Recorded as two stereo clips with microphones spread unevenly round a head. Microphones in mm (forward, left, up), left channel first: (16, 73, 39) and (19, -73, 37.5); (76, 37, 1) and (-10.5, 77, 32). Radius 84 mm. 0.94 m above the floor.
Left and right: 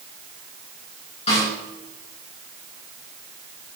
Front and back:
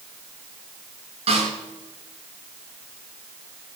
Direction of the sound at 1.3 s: 145° left.